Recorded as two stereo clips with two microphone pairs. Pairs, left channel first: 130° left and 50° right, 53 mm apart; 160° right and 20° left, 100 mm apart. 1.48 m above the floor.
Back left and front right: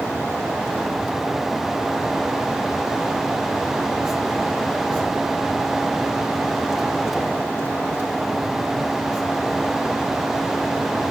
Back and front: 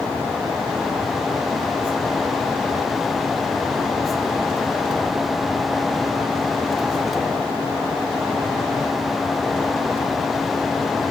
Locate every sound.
Only background noise.